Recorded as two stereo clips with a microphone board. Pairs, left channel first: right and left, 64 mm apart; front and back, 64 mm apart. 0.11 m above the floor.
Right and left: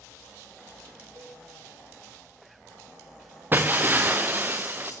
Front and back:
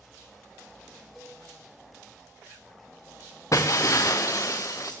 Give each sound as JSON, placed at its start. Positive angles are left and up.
{"t": 1.1, "sound": "a cowbell", "azimuth_deg": 90, "distance_m": 3.5}
{"t": 3.5, "sound": "breaking glass", "azimuth_deg": 35, "distance_m": 1.5}